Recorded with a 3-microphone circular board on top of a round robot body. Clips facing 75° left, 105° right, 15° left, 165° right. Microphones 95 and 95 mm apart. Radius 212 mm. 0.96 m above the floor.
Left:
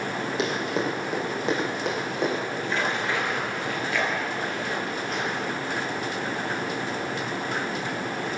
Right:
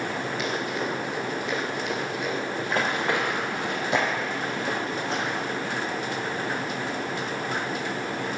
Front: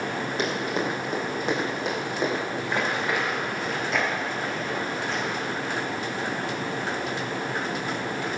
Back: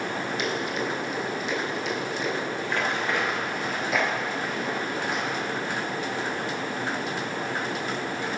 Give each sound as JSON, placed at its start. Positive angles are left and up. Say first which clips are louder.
{"t": 0.4, "sound": "running footsteps", "louder": "left 5 dB, front 3 dB", "azimuth_deg": 75, "distance_m": 3.0}
{"t": 2.6, "sound": "running footsteps", "louder": "right 1 dB, front 1 dB", "azimuth_deg": -55, "distance_m": 1.5}